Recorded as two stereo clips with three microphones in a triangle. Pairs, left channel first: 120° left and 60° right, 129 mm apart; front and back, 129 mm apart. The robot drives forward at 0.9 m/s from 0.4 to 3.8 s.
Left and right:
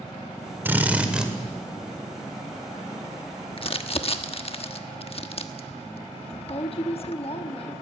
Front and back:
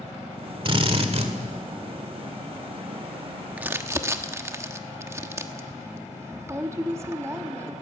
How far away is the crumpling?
About 1.1 m.